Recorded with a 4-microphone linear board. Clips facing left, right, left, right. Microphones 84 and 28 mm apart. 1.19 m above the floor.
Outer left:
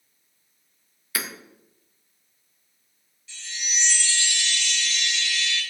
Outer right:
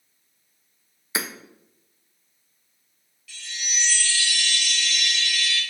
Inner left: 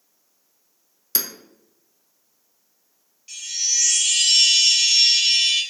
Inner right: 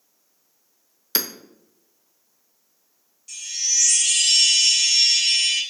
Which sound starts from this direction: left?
A chime, at 3.3 s.